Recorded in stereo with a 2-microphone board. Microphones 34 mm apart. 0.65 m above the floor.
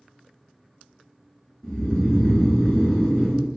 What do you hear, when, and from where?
1.6 s snoring: 20° left (ahead or behind), 1.1 m